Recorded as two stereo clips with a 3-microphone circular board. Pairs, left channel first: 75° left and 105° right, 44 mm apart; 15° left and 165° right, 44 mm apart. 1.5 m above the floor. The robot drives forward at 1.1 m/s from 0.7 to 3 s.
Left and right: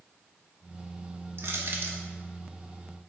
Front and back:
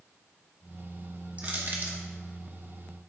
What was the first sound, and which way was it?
Crushing, 115° right.